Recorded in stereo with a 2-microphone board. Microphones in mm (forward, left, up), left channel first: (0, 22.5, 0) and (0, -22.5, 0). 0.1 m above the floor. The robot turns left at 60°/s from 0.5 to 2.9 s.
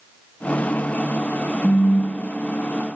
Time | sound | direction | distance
1.6 | a phone buzzing | 25° left (ahead or behind) | 1.1 m